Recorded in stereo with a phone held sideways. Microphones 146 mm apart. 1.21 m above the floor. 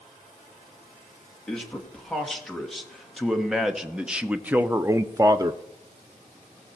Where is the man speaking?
5° left (ahead or behind), 2.5 m; by 5.6 s 25° right (ahead or behind), 0.5 m.